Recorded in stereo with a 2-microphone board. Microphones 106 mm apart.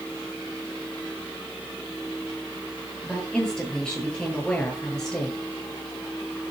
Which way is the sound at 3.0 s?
5° left (ahead or behind).